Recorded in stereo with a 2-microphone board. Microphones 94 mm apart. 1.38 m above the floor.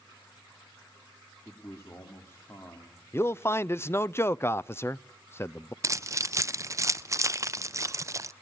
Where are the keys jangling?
35° right (ahead or behind), 0.5 m.